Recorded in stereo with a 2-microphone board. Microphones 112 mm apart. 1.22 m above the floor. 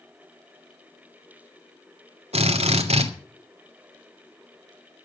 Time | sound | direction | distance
2.3 | a drill | 80° right | 2.5 m